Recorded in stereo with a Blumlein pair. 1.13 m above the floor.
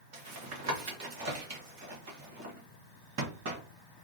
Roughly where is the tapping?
Ahead right.